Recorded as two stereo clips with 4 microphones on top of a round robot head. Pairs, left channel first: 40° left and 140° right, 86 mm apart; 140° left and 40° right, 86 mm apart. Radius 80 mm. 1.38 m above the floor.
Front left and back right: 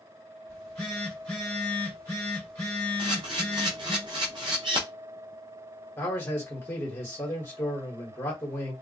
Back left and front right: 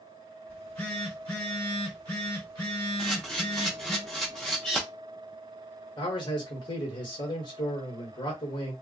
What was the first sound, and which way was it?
A phone buzzing, 95° left.